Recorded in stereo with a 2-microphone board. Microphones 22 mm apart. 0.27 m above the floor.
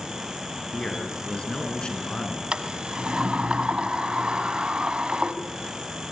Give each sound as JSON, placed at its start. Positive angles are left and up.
{"t": 0.7, "sound": "a man speaking", "side_deg": 45, "distance_m": 4.5}
{"t": 2.5, "sound": "a sliding door", "side_deg": -55, "distance_m": 1.5}